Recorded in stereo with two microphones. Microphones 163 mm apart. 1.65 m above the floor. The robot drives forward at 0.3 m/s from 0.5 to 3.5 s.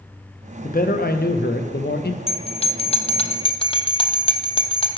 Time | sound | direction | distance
0.6 | a man speaking | 60° left (ahead or behind) | 0.8 m
2.3 | a bell | 35° left (ahead or behind) | 0.6 m